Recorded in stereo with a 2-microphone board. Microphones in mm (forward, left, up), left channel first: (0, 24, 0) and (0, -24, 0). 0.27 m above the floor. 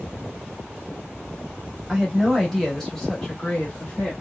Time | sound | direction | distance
1.9 | a woman speaking | 5° right (ahead or behind) | 1.1 m